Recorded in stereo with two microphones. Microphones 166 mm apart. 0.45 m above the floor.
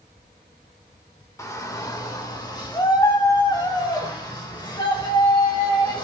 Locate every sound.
1.4 s a shout: 20° left (ahead or behind), 1.2 m; by 6.0 s 30° left (ahead or behind), 4 m